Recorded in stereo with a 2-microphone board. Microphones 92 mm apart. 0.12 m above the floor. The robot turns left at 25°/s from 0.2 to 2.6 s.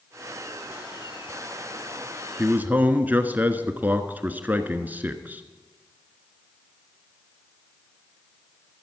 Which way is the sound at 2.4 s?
20° right (ahead or behind).